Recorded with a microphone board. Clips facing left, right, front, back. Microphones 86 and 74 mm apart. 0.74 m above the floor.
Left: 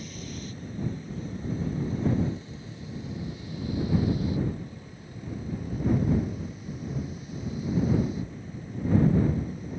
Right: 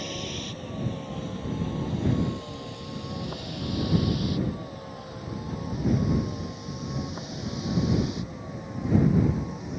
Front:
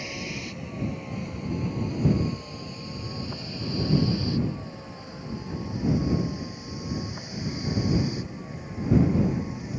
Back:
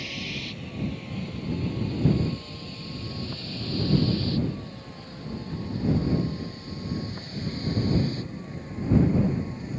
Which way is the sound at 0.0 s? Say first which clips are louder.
Right 4 dB, front 1 dB; 70° right.